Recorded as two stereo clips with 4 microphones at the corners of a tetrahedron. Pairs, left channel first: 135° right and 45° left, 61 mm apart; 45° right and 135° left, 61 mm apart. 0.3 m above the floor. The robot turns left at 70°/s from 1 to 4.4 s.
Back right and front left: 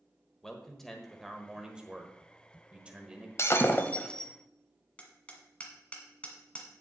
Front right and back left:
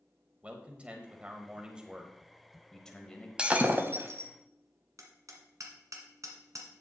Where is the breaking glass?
155° right, 0.9 m; by 4.3 s 140° left, 0.9 m.